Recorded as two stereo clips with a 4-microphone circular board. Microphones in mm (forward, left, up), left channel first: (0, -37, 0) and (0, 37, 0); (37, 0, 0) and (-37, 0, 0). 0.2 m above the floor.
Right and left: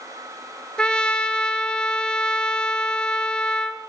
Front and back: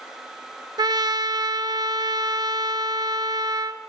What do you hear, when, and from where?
0.8 s a trumpet: 170° right, 1.2 m